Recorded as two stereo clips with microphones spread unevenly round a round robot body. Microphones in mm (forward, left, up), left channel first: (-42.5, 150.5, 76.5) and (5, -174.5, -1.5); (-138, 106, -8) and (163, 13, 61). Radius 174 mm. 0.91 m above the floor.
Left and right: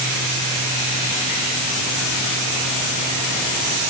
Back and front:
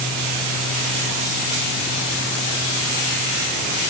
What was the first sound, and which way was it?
Only background noise.